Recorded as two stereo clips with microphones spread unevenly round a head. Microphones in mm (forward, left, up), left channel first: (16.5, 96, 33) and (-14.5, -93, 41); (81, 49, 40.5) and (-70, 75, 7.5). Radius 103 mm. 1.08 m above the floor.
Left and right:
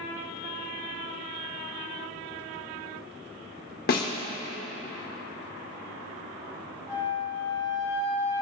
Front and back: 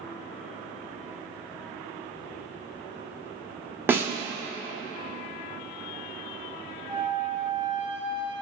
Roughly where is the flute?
Behind left.